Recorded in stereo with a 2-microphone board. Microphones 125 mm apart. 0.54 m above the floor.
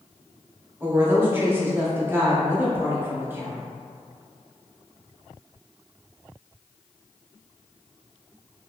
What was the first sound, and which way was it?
A woman speaking, 15° right (ahead or behind).